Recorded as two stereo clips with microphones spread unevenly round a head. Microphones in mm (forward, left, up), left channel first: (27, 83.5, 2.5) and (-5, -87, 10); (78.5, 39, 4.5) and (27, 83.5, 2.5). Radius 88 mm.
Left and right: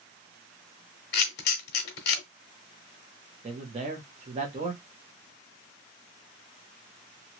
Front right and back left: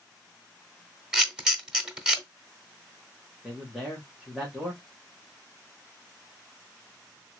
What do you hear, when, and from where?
1.1 s a camera shutter: 60° left, 1.0 m
3.4 s a man speaking: 140° right, 1.1 m